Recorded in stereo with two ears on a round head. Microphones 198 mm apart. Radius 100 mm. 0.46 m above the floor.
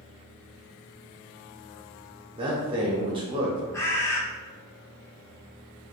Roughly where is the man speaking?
Right.